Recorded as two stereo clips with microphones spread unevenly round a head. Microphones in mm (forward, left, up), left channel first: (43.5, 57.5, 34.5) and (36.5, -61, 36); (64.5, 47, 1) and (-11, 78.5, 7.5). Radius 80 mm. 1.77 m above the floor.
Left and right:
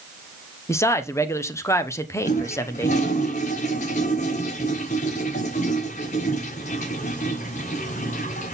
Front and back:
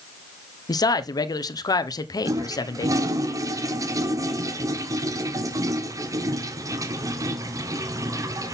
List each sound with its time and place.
0.7 s a man speaking: 20° left, 1.1 m
2.2 s a toilet flushing: 125° left, 1.0 m